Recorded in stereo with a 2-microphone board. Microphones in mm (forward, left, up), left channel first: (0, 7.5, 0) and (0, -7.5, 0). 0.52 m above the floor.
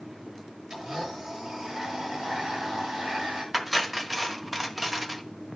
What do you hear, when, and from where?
0.7 s a blender: 70° right (ahead or behind), 8 m
3.5 s cutlery clinking: 10° right (ahead or behind), 1.2 m